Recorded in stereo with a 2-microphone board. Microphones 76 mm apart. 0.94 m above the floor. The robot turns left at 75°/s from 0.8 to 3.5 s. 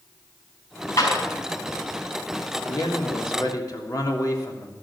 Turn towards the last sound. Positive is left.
turn(degrees=55)